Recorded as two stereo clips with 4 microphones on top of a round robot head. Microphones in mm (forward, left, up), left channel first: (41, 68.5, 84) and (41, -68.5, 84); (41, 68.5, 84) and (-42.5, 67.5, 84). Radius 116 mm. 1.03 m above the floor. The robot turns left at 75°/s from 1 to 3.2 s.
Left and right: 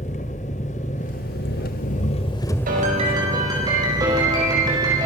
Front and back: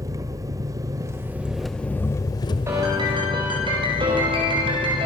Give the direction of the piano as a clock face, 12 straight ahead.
4 o'clock.